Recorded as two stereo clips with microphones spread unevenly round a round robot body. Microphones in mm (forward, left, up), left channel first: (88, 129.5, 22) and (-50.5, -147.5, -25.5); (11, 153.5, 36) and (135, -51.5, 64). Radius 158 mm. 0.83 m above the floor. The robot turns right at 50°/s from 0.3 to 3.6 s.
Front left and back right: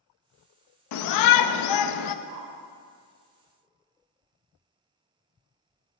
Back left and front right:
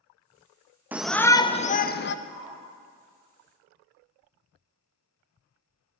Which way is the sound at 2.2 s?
165° right.